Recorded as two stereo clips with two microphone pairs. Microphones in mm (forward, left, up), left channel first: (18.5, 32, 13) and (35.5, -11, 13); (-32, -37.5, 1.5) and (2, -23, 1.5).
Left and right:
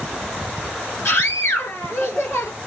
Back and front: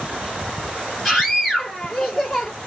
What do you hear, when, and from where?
1.1 s a scream: 120° left, 2.5 m